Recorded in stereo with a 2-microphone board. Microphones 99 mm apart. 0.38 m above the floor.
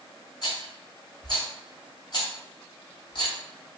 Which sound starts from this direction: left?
A rattle, at 0.4 s.